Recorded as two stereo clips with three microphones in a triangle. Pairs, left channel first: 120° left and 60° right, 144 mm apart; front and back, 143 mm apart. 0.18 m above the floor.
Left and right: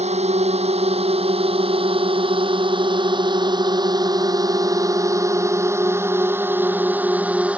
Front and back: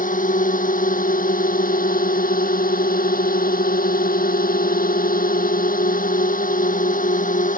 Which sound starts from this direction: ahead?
A drone, at 0.0 s.